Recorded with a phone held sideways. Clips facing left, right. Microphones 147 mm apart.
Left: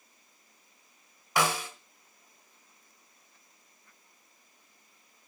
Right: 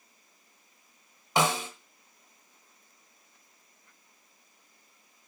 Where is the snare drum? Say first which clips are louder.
Right 2 dB; 25° right (ahead or behind), 1.3 m.